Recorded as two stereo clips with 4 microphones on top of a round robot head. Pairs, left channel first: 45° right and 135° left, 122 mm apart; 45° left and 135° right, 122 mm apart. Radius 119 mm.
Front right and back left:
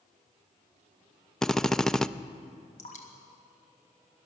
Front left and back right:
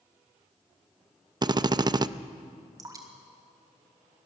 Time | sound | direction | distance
1.4 | a drill | 130° right | 0.5 m
2.8 | dripping | 70° right | 1.8 m